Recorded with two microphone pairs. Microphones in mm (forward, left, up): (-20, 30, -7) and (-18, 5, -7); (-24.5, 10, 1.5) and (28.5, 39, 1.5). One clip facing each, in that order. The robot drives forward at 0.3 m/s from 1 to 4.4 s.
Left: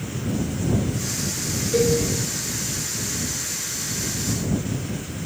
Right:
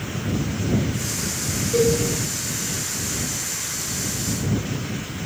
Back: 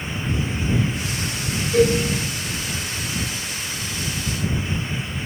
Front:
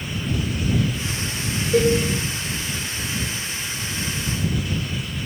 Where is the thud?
No thud in this recording.